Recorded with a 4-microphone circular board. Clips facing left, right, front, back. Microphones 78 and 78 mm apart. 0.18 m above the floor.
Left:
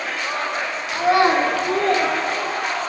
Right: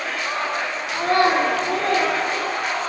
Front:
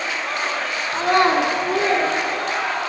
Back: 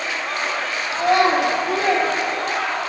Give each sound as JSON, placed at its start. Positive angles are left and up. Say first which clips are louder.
{"t": 0.9, "sound": "a child speaking", "louder": "left 2 dB, even", "azimuth_deg": 0, "distance_m": 0.9}